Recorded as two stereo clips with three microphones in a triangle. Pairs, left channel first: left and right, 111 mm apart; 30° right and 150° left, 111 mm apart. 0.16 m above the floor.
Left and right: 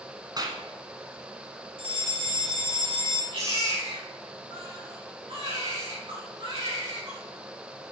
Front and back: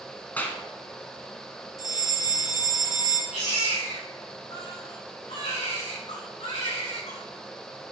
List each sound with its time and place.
0.4 s a clap: 95° right, 1.7 m
1.8 s a fire alarm: 80° right, 3 m
3.3 s a baby crying: 50° right, 6.5 m